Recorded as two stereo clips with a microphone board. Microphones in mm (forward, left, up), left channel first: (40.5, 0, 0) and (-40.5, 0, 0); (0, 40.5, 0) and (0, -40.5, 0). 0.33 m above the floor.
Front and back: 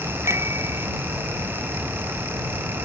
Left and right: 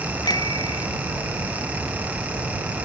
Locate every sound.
0.2 s a bicycle bell: 125° left